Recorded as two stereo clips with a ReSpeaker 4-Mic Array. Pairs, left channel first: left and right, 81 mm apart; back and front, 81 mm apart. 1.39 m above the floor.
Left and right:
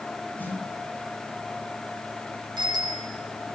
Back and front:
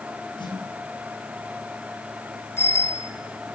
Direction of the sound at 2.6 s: 120° right.